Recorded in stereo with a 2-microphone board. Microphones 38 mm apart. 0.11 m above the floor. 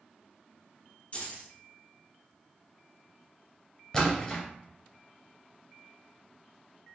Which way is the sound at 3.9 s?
20° left (ahead or behind).